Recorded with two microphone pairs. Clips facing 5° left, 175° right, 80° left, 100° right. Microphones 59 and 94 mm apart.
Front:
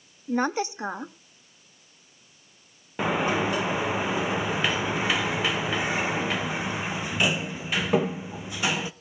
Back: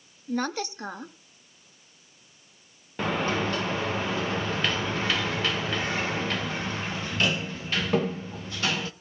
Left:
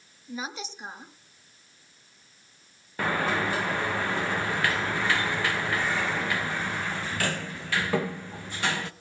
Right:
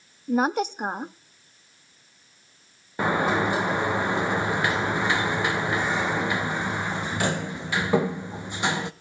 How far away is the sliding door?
About 0.6 m.